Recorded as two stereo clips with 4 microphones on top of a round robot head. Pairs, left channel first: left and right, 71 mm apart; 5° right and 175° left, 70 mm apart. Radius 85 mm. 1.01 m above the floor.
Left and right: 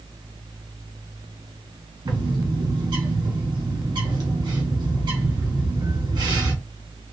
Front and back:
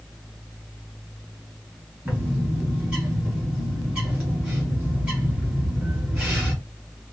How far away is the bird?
About 1.5 m.